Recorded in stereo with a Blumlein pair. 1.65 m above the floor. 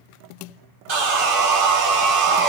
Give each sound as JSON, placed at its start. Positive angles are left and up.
{"t": 0.9, "sound": "sawing", "azimuth_deg": -45, "distance_m": 0.7}